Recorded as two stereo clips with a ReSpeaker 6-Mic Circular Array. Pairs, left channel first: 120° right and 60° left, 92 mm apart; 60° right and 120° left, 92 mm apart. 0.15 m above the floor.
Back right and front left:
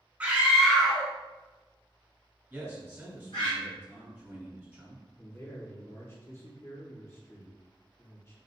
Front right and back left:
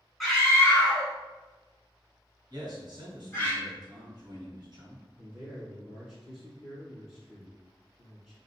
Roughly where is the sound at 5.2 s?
Behind right.